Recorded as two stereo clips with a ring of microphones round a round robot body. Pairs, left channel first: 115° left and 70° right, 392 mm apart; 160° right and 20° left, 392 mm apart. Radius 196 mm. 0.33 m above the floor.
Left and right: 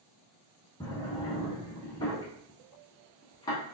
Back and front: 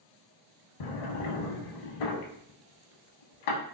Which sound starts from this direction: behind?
A drawer, at 0.8 s.